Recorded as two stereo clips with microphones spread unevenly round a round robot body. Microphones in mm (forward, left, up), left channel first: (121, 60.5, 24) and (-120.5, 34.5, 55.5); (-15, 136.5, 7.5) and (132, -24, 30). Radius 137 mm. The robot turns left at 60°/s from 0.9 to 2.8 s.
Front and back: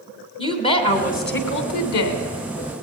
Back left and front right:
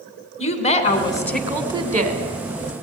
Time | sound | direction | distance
0.4 | a woman speaking | 75° left | 3.5 m